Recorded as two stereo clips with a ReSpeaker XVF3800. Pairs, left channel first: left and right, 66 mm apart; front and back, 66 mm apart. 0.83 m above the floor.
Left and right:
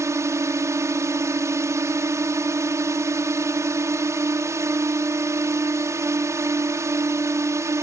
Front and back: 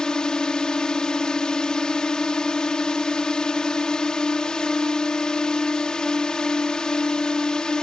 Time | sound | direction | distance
0.0 | a drone | 75° right | ?